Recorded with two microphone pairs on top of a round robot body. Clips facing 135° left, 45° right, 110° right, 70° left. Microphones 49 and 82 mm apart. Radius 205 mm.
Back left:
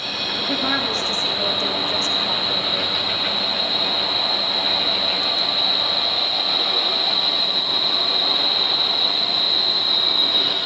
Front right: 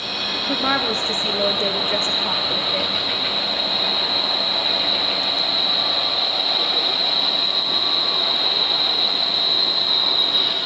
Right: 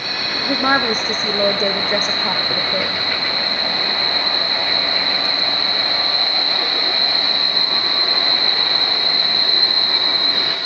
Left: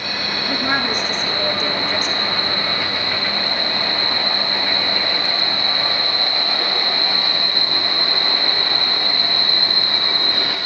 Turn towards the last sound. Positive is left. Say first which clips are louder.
# front right 2 dB, right 5 dB
turn(degrees=-110)